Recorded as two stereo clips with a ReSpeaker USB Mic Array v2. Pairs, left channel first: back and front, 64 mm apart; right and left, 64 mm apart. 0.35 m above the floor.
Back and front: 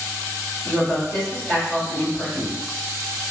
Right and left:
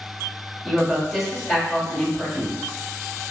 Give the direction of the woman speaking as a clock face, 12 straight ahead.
6 o'clock.